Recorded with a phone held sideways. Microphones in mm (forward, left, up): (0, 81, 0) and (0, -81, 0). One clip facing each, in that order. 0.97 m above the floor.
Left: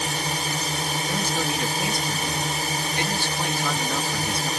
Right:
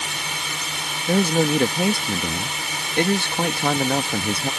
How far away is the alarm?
No alarm in this recording.